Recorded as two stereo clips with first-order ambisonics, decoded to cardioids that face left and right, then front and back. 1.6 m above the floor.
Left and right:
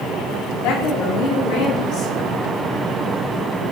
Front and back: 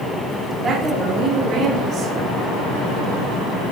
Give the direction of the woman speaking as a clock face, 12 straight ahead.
8 o'clock.